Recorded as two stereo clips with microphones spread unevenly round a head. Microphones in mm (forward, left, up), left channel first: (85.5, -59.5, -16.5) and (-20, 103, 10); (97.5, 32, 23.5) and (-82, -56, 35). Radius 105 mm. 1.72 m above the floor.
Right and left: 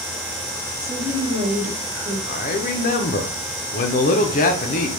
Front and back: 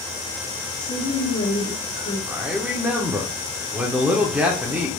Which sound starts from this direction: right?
A man speaking, at 2.3 s.